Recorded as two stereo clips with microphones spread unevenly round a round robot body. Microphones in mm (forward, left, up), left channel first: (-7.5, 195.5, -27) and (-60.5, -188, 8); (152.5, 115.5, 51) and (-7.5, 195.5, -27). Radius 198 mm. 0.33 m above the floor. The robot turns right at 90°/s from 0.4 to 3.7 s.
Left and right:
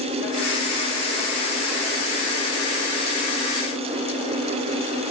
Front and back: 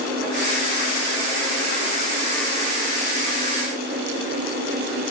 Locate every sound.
Only background noise.